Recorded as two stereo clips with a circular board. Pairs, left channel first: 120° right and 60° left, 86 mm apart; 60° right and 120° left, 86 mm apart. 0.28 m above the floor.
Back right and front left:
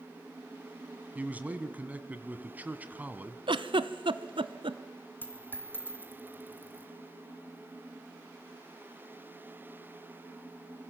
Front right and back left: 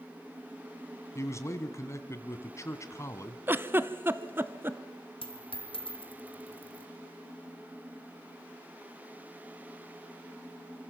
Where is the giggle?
55° left, 0.8 m.